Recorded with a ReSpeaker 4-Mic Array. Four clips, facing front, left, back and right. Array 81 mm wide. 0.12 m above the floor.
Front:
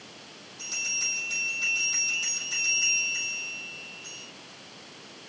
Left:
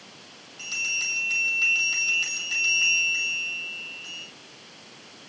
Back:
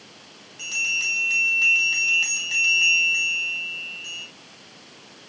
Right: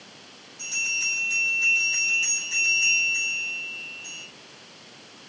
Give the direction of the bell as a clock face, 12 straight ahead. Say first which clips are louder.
Right 1 dB, back 9 dB; 7 o'clock.